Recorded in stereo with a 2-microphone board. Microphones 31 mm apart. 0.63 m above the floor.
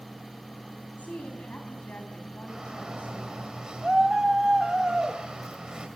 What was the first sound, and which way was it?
A woman speaking, 55° left (ahead or behind).